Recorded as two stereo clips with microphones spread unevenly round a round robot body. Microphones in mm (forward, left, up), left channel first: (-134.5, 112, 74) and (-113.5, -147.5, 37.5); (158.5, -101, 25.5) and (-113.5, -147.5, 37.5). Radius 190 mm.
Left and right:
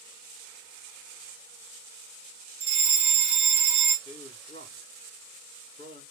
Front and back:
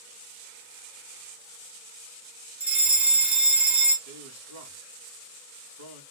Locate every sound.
2.6 s a fire alarm: 85° right, 1.6 m
4.0 s a man speaking: 165° left, 2 m